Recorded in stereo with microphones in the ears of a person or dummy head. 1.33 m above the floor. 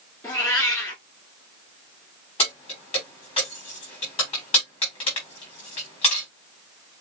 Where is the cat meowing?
15° left (ahead or behind), 1.9 m.